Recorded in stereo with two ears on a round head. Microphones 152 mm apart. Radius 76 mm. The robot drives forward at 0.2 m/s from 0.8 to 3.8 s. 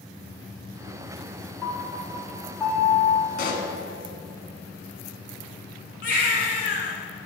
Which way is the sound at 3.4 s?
50° left (ahead or behind).